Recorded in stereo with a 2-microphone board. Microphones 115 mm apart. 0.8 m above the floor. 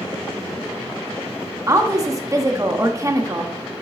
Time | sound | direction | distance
1.7 | a woman speaking | 30° right (ahead or behind) | 1.2 m